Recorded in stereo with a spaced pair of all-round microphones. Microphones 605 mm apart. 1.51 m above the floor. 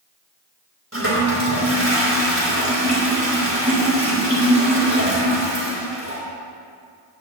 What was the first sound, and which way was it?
A toilet flushing, 25° right (ahead or behind).